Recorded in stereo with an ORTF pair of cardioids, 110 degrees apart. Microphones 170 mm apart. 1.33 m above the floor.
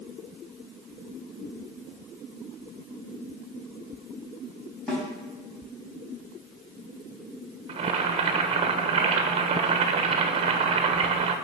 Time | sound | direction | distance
4.9 | a snare drum | 5° left | 3.5 m
7.7 | boiling | 35° right | 1.2 m